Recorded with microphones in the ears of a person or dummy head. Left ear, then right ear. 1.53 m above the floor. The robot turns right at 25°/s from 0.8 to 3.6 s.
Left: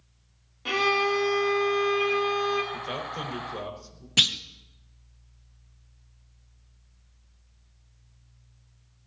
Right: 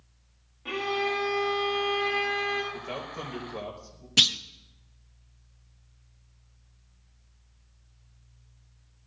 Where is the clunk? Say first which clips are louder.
Even; centre (ahead or behind), 0.6 m.